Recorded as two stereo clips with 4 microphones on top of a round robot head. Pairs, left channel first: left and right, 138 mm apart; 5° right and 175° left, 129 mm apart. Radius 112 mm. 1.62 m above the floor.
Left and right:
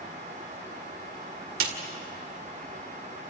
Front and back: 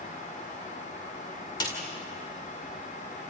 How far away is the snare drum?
About 2 m.